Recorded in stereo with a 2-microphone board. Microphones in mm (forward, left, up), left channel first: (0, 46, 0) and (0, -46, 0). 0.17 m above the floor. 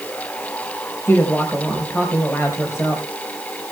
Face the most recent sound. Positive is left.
turn(degrees=30)  # may be behind; listen again after turning